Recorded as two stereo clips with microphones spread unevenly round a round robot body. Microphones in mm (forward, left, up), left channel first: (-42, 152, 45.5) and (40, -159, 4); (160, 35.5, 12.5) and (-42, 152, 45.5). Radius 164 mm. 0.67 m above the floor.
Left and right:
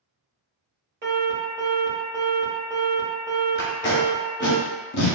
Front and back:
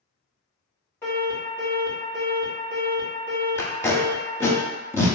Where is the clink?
I don't hear a clink.